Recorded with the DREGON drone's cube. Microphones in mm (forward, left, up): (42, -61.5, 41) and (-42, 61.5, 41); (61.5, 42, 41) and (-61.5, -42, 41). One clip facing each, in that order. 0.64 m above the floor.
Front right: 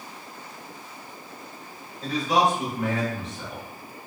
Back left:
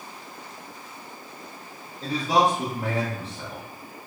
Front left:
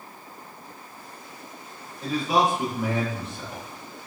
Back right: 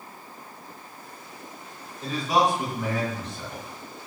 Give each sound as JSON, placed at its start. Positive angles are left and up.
{"t": 2.0, "sound": "a man speaking", "azimuth_deg": 120, "distance_m": 0.9}